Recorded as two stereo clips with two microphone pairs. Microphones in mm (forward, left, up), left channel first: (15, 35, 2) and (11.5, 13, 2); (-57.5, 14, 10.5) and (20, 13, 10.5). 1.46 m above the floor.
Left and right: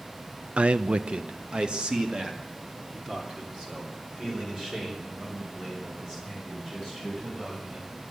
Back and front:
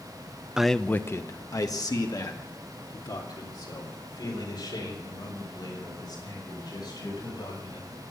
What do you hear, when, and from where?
0.6 s a man speaking: 85° right, 0.6 m; by 7.9 s 160° right, 8.5 m